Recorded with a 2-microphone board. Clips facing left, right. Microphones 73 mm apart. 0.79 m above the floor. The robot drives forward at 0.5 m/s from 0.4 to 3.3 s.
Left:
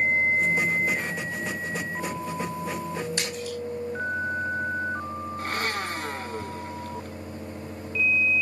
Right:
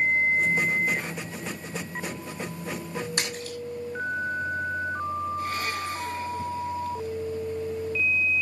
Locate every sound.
3.2 s a splash: 65° right (ahead or behind), 5.5 m
5.4 s a blender: 60° left (ahead or behind), 1.2 m